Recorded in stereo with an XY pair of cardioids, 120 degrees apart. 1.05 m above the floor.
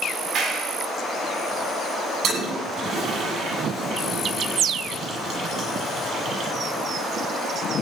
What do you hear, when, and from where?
0.3 s a clap: 65° right, 7 m
2.2 s a toilet flushing: 55° right, 9.5 m